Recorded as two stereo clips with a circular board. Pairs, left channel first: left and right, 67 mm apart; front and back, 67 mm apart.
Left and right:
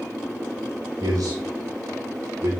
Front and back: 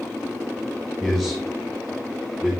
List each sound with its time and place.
1.0 s a man speaking: 90° right, 4 m; by 2.5 s 105° right, 4.5 m